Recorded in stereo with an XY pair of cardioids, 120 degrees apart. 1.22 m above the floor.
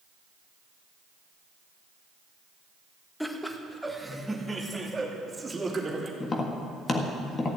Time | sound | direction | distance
3.2 | laughter | 10° left | 1.5 m
6.2 | tapping | 35° left | 1.7 m